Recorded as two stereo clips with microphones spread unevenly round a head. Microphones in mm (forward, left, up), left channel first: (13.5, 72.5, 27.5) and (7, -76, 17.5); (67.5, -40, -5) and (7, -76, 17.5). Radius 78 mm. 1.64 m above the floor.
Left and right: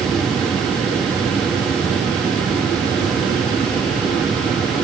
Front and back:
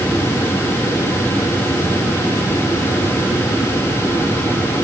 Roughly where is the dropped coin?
I don't hear a dropped coin.